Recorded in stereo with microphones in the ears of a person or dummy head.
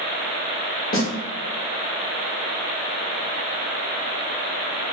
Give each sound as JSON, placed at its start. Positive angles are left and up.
{"t": 0.9, "sound": "a snare drum", "side_deg": 45, "distance_m": 1.1}